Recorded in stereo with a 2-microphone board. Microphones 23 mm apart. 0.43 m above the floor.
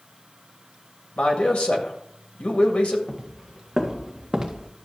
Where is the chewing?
No chewing in this recording.